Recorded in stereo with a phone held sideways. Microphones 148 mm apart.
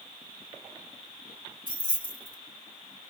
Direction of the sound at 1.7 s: 75° right (ahead or behind).